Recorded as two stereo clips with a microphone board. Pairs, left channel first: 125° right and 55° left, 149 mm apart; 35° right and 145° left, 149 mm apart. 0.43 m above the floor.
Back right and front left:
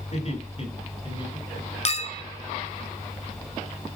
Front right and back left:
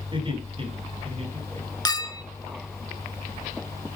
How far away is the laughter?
About 3.5 m.